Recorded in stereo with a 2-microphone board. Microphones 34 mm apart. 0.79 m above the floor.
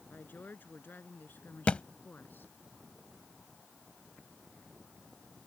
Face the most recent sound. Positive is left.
turn(degrees=35)  # may be behind; listen again after turning